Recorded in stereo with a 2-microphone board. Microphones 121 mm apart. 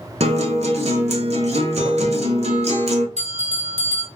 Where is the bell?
85° right, 0.8 m.